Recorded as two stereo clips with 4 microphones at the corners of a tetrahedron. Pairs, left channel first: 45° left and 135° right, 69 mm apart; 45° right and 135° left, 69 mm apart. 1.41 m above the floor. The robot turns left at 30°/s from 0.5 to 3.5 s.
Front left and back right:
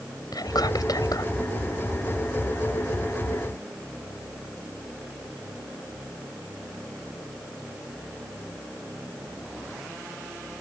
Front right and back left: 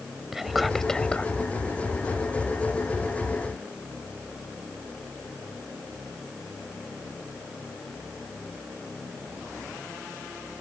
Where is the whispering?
50° left; by 1.3 s 25° left.